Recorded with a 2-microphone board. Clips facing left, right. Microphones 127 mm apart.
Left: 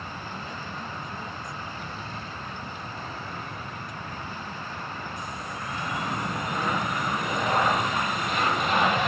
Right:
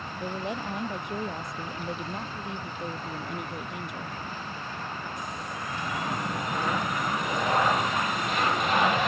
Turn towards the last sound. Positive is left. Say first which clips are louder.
# right 5 dB
turn(degrees=-85)